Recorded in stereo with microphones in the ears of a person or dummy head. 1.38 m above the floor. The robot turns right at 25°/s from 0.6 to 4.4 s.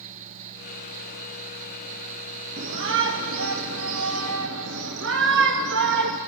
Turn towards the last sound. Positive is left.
turn(degrees=-70)